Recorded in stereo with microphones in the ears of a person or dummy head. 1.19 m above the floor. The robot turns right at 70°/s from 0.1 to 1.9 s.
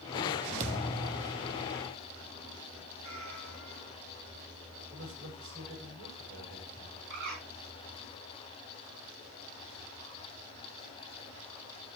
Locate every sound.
0.6 s a thud: 45° right, 1.0 m; by 1.9 s 45° left, 1.0 m
3.0 s a cat meowing: 40° right (ahead or behind), 9.5 m
4.9 s a man speaking: 75° right (ahead or behind), 6 m
7.1 s a bird: 60° right (ahead or behind), 5.5 m